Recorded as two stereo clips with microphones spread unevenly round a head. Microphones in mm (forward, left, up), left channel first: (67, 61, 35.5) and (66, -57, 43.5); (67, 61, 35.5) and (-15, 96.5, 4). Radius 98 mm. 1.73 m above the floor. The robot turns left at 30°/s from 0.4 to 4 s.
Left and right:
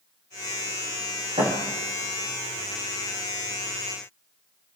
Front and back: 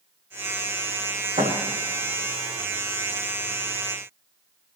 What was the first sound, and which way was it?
A thud, 150° right.